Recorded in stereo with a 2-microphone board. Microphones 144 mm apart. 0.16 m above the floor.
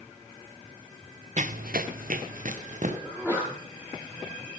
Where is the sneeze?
10° right (ahead or behind), 8.5 m.